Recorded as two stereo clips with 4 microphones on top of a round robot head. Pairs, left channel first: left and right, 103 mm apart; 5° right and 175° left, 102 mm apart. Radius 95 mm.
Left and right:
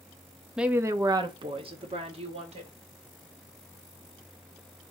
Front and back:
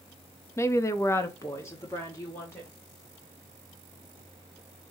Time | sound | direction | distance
0.6 | a woman speaking | 15° right | 0.6 m